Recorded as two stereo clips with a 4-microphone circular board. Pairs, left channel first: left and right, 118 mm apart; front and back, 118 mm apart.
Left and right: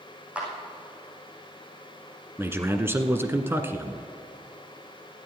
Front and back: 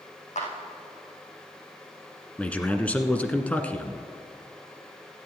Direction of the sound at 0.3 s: 10° right.